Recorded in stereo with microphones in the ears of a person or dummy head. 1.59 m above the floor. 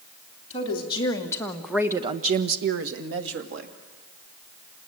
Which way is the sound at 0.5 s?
30° left (ahead or behind).